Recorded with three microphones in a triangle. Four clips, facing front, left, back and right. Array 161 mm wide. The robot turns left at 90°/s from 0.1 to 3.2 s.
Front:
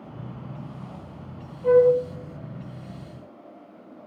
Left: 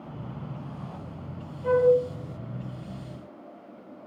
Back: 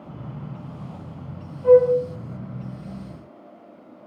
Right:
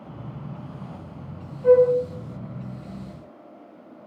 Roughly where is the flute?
Right.